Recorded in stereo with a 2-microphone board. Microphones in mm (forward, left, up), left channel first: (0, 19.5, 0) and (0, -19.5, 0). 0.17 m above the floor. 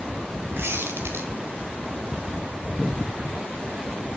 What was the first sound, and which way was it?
A squeak, 80° right.